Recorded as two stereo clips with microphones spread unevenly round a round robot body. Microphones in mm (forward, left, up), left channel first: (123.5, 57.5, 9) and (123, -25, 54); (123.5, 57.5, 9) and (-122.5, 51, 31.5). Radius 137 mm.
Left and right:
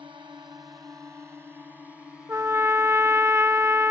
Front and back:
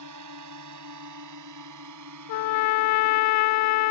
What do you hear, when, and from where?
0.0 s a drone: 160° right; by 3.9 s 170° left
2.3 s a trumpet: 25° right